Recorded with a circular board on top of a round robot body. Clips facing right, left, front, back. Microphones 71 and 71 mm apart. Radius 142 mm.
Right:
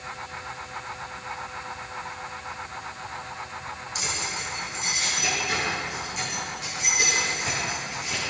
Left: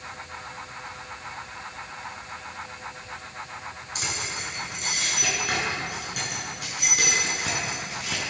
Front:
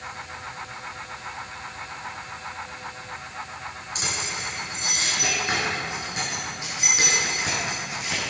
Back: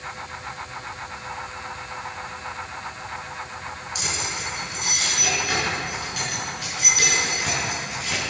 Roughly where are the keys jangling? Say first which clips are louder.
Even, even; ahead left.